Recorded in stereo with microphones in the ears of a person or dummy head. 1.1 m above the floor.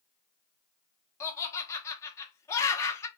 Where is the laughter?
15° left (ahead or behind), 0.9 m.